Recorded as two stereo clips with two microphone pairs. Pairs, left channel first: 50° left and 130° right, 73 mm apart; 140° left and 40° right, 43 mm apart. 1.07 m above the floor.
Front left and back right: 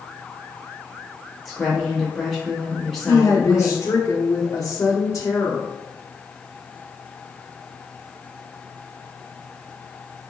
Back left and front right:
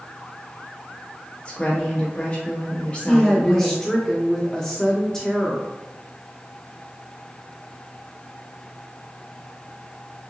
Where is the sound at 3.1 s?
65° left, 0.7 m.